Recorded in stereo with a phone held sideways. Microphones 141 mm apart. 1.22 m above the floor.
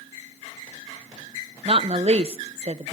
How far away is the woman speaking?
About 0.9 m.